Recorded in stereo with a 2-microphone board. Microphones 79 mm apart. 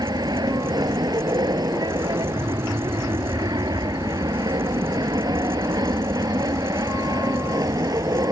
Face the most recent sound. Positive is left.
turn(degrees=-55)  # may be behind; listen again after turning